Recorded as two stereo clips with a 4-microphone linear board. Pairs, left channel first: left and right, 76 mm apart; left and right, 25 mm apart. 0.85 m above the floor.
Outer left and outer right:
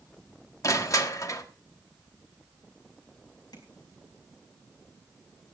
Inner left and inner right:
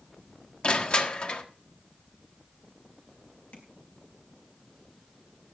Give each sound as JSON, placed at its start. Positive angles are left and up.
{"t": 0.6, "sound": "crushing", "side_deg": 45, "distance_m": 1.3}
{"t": 3.5, "sound": "tapping", "side_deg": 60, "distance_m": 4.5}